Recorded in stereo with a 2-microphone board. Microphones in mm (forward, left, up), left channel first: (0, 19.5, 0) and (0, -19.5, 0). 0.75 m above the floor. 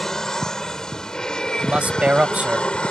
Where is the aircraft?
15° left (ahead or behind); by 2.9 s 30° left (ahead or behind).